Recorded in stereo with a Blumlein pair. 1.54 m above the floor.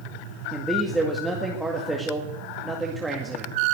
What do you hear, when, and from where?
0.5 s a man speaking: 5° right, 2 m